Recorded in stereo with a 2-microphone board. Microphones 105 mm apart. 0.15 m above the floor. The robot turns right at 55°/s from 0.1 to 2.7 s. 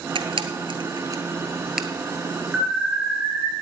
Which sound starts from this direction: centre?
An alarm, at 2.5 s.